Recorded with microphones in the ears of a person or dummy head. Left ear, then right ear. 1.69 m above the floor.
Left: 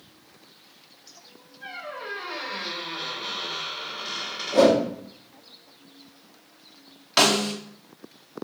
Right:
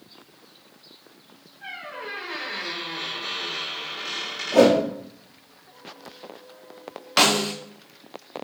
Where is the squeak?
35° right (ahead or behind), 3 m.